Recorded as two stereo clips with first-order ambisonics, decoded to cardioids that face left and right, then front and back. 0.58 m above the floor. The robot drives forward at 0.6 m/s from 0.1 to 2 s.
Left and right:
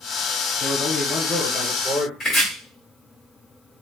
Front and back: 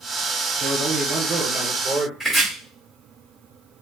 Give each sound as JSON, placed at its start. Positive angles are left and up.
{"t": 0.6, "sound": "a man speaking", "azimuth_deg": 150, "distance_m": 1.8}
{"t": 2.2, "sound": "chopping", "azimuth_deg": 125, "distance_m": 1.3}